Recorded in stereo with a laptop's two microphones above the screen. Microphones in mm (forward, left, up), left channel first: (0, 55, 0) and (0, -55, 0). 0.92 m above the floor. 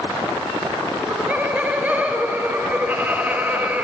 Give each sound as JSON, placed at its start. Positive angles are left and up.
{"t": 0.9, "sound": "laughter", "side_deg": -15, "distance_m": 3.5}